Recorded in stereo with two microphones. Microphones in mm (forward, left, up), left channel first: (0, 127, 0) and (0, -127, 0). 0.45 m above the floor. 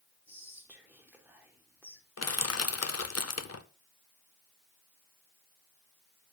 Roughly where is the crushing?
Left.